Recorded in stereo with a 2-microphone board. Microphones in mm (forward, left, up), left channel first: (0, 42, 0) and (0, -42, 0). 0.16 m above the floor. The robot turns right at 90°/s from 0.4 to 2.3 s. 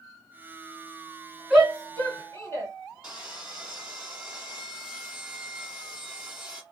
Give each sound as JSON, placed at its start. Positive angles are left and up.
{"t": 1.5, "sound": "a shout", "side_deg": -5, "distance_m": 2.0}
{"t": 3.0, "sound": "sawing", "side_deg": -10, "distance_m": 1.6}